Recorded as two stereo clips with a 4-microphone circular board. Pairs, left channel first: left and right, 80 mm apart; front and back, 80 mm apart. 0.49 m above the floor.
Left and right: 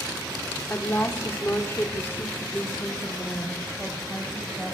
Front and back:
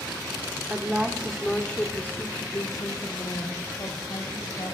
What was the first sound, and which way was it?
A woman speaking, 135° left.